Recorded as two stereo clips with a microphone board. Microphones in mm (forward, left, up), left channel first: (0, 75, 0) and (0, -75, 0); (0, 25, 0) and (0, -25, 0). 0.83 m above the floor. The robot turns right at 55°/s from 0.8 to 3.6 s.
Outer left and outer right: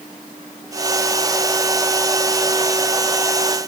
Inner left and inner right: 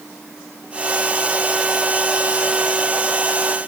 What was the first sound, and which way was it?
Only background noise.